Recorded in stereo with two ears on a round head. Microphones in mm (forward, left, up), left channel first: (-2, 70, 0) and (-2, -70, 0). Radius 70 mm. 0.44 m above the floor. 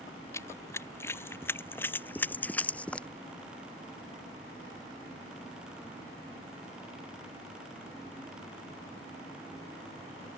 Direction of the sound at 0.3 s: 20° left (ahead or behind).